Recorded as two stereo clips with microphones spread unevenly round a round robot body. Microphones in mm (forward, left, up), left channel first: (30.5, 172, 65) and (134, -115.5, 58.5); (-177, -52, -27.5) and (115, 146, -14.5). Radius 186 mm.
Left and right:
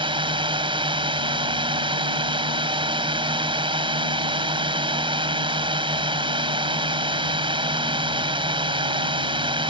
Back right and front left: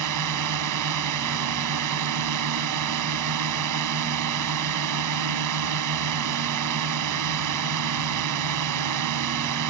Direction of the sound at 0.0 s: Straight ahead.